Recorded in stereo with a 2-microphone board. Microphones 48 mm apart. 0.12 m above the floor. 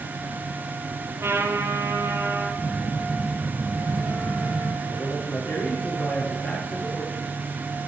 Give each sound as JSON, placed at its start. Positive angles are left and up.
{"t": 1.2, "sound": "a trumpet", "side_deg": -55, "distance_m": 3.0}
{"t": 2.6, "sound": "a phone buzzing", "side_deg": 75, "distance_m": 9.5}
{"t": 4.9, "sound": "a man speaking", "side_deg": 65, "distance_m": 7.0}